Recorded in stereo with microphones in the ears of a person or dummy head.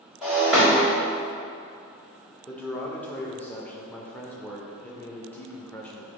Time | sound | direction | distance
0.2 | breaking glass | centre (ahead or behind) | 1.3 m
2.5 | a man speaking | 5° left (ahead or behind) | 0.5 m